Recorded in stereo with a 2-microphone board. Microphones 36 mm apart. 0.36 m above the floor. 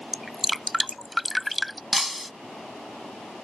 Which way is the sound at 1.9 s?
5° right (ahead or behind).